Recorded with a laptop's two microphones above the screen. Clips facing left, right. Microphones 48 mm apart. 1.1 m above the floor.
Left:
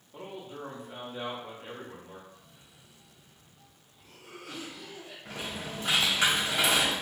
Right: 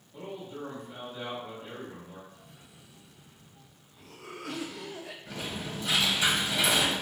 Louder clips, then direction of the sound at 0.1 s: Right 1 dB; 35° left (ahead or behind).